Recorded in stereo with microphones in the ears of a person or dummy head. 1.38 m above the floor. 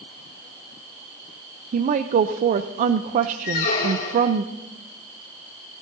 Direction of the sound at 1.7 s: 50° right (ahead or behind).